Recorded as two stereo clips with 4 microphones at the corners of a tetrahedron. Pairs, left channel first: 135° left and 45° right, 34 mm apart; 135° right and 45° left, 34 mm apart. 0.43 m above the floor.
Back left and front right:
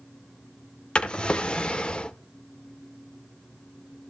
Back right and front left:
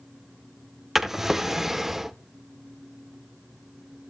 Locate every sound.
0.9 s a drawer: 115° left, 0.6 m